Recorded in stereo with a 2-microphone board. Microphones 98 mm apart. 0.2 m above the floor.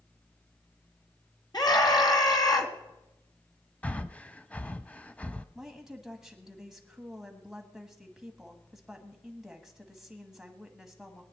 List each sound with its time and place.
1.5 s a scream: 45° left (ahead or behind), 1.9 m
3.8 s breathing: 15° left (ahead or behind), 0.5 m
5.5 s a woman speaking: 5° right (ahead or behind), 1.5 m